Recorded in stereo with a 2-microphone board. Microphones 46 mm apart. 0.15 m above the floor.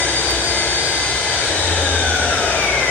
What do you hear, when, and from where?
0.0 s an engine running: 60° left (ahead or behind), 8 m